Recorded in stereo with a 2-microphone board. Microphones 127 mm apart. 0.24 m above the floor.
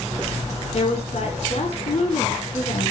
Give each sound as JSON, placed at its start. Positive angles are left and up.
{"t": 0.7, "sound": "a woman speaking", "side_deg": 60, "distance_m": 1.9}